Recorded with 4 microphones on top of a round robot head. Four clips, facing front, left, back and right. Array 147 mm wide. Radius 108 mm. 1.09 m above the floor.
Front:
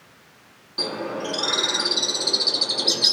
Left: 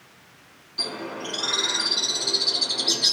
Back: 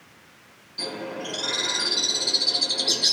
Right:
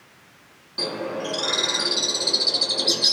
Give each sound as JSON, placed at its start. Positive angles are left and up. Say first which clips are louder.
{"t": 0.8, "sound": "a bird", "louder": "right 5 dB, front 4 dB", "azimuth_deg": -35, "distance_m": 1.0}